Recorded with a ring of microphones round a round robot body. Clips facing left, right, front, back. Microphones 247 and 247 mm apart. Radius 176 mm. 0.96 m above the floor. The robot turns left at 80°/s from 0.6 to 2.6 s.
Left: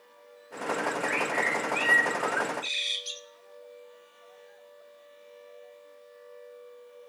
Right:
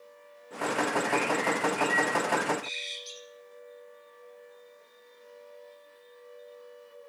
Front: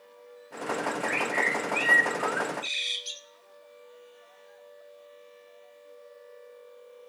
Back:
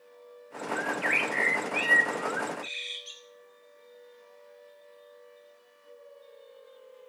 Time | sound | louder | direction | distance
0.8 | a bird | right 4 dB, front 1 dB | 170° right | 1.1 m